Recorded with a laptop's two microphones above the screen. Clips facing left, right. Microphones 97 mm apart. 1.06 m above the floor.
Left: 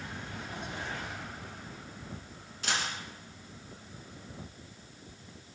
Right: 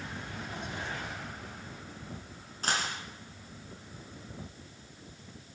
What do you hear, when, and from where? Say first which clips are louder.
2.6 s a dropped coin: right 2 dB; 40° right (ahead or behind), 3 m